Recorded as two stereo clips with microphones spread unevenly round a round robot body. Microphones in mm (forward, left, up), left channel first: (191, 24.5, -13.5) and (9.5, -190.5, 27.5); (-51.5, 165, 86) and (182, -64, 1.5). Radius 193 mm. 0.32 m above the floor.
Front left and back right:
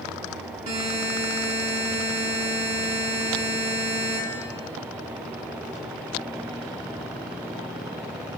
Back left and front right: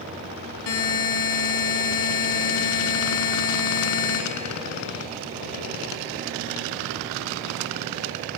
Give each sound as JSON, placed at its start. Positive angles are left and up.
{"t": 0.7, "sound": "a buzzer", "azimuth_deg": 155, "distance_m": 2.5}